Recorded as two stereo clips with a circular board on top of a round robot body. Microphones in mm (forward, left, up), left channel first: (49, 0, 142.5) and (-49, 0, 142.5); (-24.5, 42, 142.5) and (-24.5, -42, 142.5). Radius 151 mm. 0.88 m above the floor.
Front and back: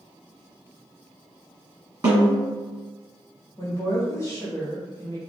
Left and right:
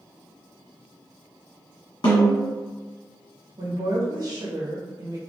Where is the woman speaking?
55° right, 1.8 m.